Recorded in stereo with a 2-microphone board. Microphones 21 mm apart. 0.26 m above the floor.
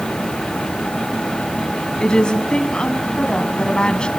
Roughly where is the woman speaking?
Left.